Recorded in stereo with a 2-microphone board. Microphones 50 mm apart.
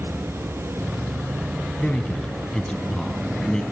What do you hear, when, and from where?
1.8 s a man speaking: 10° left (ahead or behind), 1.2 m